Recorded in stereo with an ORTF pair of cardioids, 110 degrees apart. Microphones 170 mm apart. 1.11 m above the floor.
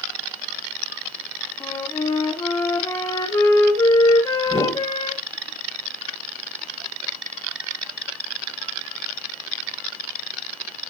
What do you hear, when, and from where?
1.6 s a flute: 20° left, 1.8 m
4.5 s a whoosh: 5° right, 3 m